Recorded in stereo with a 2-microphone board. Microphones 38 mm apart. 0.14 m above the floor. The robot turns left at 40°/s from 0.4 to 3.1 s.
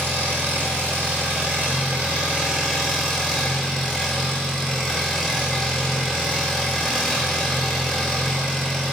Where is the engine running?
75° right, 0.9 m; by 8.9 s straight behind, 0.9 m.